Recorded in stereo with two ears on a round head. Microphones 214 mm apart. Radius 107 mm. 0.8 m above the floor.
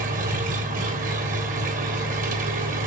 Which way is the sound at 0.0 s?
30° right (ahead or behind).